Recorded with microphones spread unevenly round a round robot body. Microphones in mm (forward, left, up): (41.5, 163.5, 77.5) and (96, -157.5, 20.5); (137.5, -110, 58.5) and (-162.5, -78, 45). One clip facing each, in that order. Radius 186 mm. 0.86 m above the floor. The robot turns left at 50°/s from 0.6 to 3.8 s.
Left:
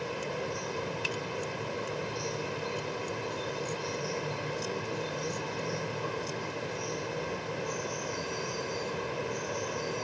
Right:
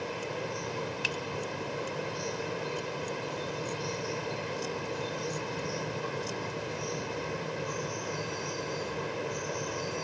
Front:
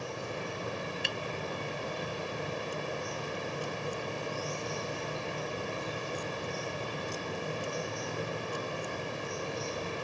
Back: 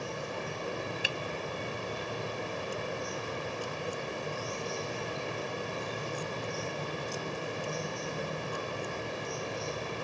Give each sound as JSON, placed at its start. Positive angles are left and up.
{"t": 1.0, "sound": "a finger snap", "azimuth_deg": -100}